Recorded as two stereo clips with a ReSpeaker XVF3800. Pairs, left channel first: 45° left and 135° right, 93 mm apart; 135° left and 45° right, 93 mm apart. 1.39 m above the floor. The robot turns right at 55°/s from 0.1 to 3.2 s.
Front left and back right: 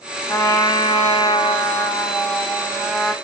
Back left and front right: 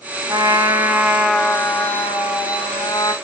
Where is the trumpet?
10° right, 0.8 m; by 3.1 s 145° left, 0.8 m.